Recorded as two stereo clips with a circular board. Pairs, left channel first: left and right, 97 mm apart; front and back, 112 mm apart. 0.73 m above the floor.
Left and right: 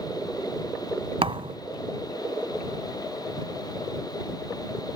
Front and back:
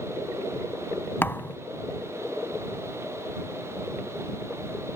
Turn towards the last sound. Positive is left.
turn(degrees=-70)